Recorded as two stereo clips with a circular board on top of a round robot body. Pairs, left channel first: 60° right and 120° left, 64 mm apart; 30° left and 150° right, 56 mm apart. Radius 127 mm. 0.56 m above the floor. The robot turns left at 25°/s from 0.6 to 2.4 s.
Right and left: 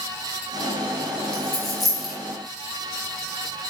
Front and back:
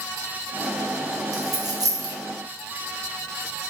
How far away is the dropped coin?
About 1.1 m.